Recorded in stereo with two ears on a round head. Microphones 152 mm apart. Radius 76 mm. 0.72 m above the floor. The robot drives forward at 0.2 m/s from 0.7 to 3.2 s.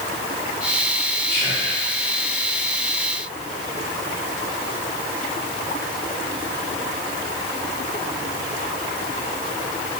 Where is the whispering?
20° left (ahead or behind), 2.0 m.